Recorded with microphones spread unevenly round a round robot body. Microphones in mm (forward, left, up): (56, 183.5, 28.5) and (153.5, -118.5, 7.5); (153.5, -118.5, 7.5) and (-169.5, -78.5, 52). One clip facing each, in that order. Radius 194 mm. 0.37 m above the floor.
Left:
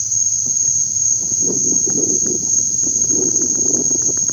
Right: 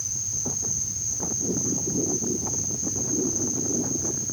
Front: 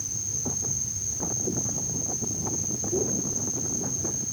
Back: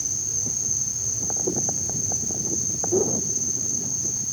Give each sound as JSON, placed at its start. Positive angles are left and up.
{"t": 0.0, "sound": "an insect", "azimuth_deg": 95}